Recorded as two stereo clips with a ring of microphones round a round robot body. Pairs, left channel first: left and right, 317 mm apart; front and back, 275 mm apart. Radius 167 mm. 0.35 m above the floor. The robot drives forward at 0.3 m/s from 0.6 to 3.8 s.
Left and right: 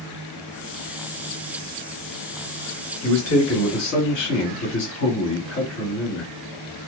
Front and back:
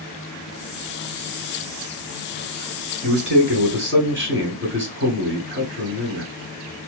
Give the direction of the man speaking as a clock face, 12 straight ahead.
8 o'clock.